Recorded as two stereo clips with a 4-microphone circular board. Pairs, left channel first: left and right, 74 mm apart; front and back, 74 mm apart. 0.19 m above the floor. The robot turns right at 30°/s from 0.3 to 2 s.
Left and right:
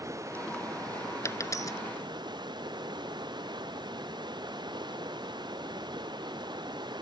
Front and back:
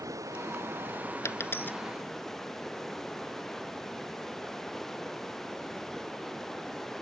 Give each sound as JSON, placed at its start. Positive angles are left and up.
{"t": 0.0, "sound": "running water", "azimuth_deg": -135}
{"t": 1.2, "sound": "a dropped coin", "azimuth_deg": 50}